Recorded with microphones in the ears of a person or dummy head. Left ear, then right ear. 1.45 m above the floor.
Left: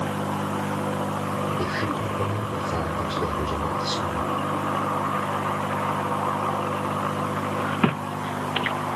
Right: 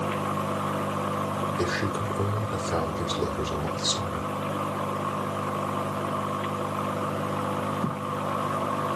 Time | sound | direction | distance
1.6 | a man speaking | 75° right (ahead or behind) | 3.5 m